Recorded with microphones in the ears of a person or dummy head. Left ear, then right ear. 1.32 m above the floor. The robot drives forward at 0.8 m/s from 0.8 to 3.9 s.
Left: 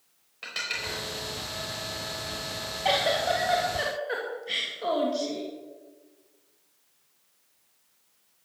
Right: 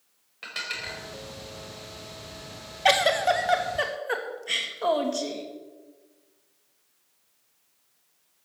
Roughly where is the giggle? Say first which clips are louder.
Right 4 dB; right.